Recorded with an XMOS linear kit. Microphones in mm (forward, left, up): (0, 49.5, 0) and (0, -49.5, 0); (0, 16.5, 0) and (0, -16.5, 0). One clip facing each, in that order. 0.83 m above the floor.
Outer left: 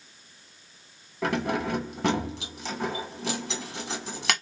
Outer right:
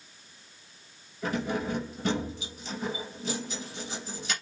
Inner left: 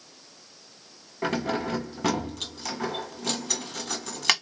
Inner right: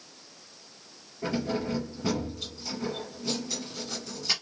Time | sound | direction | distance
1.2 | keys jangling | 80° left | 1.3 m